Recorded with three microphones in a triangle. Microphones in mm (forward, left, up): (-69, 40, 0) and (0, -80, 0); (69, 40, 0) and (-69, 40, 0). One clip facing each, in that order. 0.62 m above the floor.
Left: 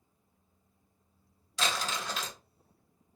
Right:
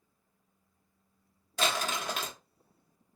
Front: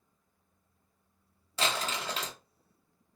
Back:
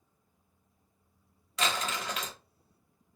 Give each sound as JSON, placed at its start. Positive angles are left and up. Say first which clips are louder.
{"t": 1.6, "sound": "crumpling", "louder": "right 2 dB, even", "azimuth_deg": -50, "distance_m": 0.9}